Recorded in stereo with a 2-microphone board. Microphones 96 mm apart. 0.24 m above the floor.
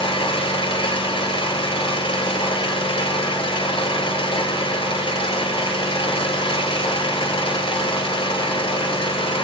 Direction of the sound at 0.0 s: 80° left.